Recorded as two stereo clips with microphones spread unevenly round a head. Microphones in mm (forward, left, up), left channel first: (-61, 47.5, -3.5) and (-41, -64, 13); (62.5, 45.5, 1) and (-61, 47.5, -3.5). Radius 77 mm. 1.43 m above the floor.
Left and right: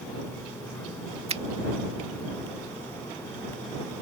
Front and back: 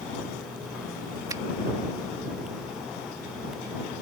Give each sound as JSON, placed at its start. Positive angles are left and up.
{"t": 1.3, "sound": "a finger snap", "azimuth_deg": -110}